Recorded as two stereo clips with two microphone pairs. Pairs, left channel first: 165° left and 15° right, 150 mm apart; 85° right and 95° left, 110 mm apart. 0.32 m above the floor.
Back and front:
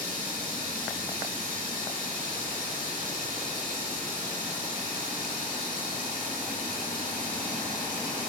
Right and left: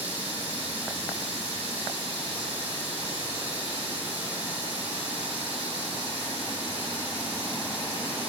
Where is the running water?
105° left, 7 m.